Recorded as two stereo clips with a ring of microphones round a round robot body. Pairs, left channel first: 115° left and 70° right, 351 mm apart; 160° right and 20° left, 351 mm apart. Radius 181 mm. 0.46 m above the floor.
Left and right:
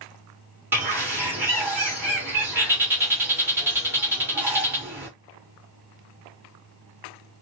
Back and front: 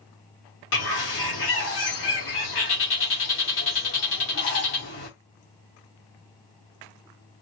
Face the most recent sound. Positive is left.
turn(degrees=-145)